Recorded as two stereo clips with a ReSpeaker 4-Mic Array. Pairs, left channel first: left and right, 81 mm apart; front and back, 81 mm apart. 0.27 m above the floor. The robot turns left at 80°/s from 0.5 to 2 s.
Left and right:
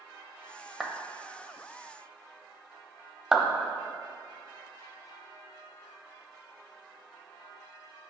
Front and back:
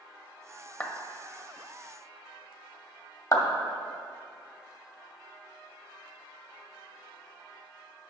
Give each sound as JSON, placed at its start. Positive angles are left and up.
{"t": 0.8, "sound": "a clap", "azimuth_deg": -15, "distance_m": 0.7}
{"t": 3.3, "sound": "a clap", "azimuth_deg": -10, "distance_m": 1.0}